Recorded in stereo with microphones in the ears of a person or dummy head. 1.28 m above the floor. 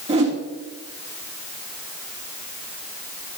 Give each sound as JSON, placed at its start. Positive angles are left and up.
{"t": 0.1, "sound": "a whoosh", "side_deg": -35, "distance_m": 2.0}